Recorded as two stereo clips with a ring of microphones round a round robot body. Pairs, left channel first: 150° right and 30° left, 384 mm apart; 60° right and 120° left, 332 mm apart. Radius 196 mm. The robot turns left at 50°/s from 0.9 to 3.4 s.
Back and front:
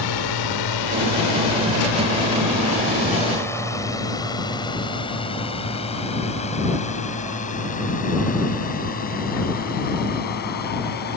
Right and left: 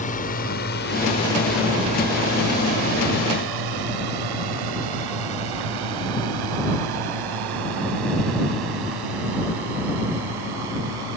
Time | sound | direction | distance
0.0 | a drone | 130° right | ?